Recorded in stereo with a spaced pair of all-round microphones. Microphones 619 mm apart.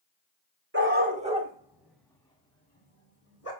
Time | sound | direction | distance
0.7 | a dog barking | 20° right (ahead or behind) | 2.5 m